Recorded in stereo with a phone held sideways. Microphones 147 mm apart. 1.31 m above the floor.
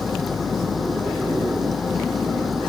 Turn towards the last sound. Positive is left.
turn(degrees=0)  # may be behind; listen again after turning